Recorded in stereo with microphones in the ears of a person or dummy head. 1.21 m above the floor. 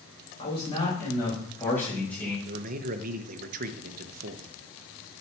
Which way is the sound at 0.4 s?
25° left (ahead or behind).